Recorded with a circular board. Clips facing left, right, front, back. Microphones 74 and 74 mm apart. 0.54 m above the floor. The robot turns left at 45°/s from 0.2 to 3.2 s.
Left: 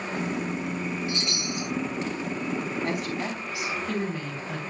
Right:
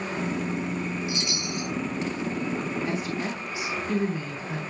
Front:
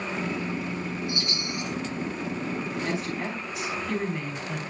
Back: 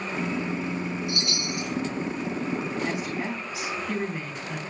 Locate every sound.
1.1 s a chime: 165° right, 3 m; by 1.7 s 170° left, 3 m
2.8 s a woman speaking: 110° left, 5.5 m; by 4.6 s 95° left, 5.5 m